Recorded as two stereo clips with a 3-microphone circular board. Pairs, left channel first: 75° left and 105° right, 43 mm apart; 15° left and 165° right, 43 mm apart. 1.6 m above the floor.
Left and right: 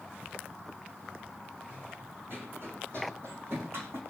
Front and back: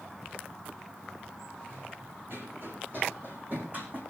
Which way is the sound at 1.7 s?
140° right.